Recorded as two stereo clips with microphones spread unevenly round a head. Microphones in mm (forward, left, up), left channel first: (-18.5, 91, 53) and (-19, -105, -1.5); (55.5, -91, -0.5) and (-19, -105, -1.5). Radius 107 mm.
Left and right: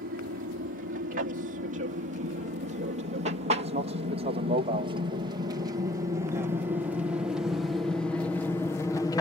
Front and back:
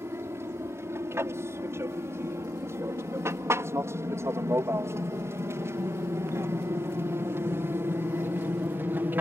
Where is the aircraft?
120° right; by 9.2 s 170° left.